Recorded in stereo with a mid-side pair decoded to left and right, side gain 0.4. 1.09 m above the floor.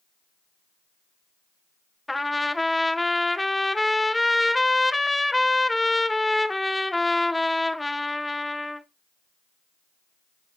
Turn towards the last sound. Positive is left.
turn(degrees=10)